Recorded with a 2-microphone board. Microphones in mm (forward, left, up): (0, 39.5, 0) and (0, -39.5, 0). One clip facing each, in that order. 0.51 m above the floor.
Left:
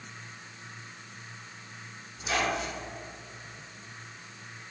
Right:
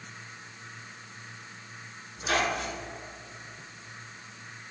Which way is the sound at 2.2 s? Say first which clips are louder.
Right 1 dB; 60° right (ahead or behind).